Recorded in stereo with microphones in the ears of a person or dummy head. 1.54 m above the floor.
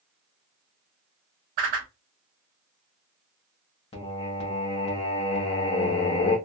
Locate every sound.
1.6 s a whoosh: 45° right (ahead or behind), 1.1 m
3.9 s singing: 25° left (ahead or behind), 0.7 m